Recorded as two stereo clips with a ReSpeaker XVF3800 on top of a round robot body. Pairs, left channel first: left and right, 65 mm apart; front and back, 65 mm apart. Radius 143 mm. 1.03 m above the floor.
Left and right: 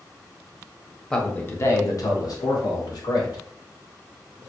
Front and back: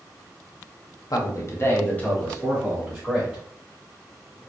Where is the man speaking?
10° left, 1.1 m; by 3.4 s 95° left, 2.5 m.